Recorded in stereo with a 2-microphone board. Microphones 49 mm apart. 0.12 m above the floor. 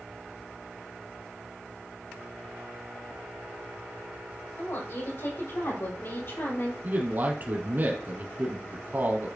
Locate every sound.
4.6 s a woman speaking: 60° left (ahead or behind), 5 m; by 6.7 s 50° left (ahead or behind), 2 m
6.8 s a man speaking: 40° right (ahead or behind), 3 m